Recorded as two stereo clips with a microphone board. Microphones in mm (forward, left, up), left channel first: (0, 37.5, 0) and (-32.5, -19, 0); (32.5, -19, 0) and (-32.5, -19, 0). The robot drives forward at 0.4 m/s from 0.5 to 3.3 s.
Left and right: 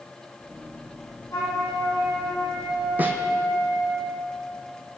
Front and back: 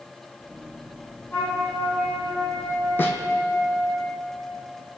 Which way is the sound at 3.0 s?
55° right.